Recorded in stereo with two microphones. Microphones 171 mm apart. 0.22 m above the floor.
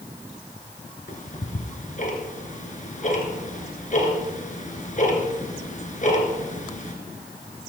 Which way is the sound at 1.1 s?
50° left (ahead or behind).